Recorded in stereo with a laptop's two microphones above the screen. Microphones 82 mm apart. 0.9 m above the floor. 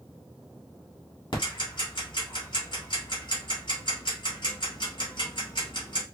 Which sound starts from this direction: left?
Ticking, at 1.3 s.